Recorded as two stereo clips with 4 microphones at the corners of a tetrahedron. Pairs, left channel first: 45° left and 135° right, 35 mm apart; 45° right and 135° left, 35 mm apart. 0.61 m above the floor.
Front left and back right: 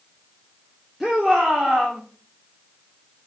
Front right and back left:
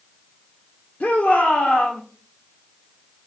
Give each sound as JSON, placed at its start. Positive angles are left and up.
{"t": 1.0, "sound": "a shout", "azimuth_deg": -50, "distance_m": 1.8}